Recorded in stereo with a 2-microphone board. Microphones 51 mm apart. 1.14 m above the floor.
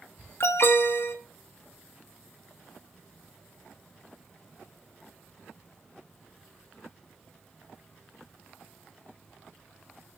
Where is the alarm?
55° left (ahead or behind), 1.1 m.